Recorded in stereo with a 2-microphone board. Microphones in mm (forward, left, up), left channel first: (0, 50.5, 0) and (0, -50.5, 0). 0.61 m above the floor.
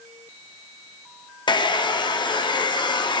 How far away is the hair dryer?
About 0.5 m.